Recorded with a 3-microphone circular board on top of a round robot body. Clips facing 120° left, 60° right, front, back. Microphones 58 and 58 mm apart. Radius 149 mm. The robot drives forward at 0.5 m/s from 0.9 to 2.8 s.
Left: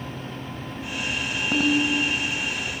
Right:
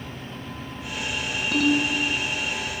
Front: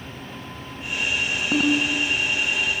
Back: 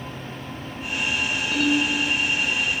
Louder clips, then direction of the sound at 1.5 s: Even, front 1 dB; 50° left.